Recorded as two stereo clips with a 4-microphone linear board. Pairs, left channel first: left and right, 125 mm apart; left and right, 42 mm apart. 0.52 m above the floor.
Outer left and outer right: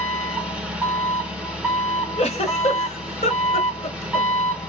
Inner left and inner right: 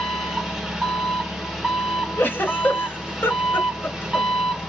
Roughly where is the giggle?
Left.